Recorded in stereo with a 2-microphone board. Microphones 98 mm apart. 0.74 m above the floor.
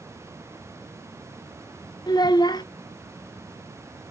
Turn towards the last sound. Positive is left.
turn(degrees=45)  # may be behind; listen again after turning